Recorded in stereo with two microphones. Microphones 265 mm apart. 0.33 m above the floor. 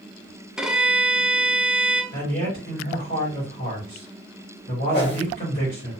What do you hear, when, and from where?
0.6 s a violin: 5° right (ahead or behind), 0.5 m
2.1 s a man speaking: 35° left (ahead or behind), 2.0 m
4.9 s a whoosh: 40° left (ahead or behind), 0.9 m